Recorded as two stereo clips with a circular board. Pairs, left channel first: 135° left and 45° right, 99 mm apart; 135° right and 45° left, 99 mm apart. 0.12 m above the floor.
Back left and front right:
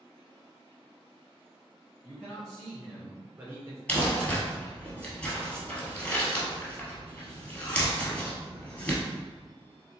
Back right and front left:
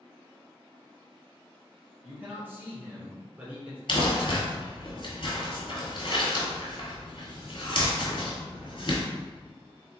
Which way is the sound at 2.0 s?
75° left.